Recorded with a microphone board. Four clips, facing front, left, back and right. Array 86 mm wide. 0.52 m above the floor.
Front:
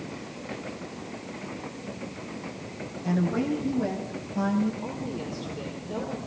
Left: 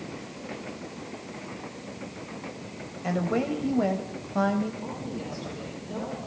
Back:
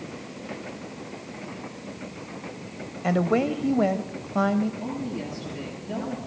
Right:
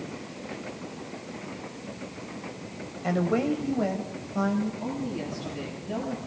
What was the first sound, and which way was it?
A woman speaking, 175° right.